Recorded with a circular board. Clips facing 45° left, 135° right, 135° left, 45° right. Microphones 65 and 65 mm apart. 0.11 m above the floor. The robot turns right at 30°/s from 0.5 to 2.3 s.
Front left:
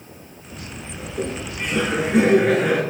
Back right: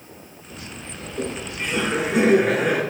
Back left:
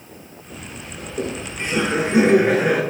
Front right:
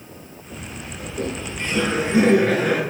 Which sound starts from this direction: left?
Laughter, at 1.0 s.